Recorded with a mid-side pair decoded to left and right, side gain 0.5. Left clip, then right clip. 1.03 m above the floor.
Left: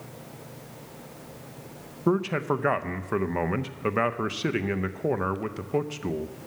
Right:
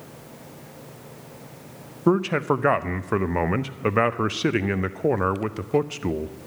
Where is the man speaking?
25° right, 0.5 m.